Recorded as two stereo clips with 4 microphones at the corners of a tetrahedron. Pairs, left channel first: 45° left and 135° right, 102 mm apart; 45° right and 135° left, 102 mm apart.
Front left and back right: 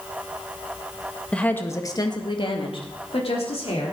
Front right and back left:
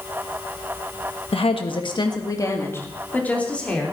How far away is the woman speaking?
About 1.6 m.